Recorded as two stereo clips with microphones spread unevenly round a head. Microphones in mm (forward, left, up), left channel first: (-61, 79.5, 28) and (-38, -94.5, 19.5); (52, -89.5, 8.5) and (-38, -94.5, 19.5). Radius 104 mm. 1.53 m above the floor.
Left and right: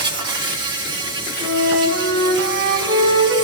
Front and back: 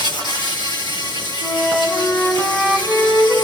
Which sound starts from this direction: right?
A flute, at 1.4 s.